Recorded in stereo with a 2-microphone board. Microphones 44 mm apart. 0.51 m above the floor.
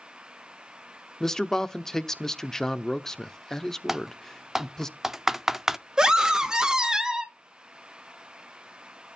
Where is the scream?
15° right (ahead or behind), 1.4 m.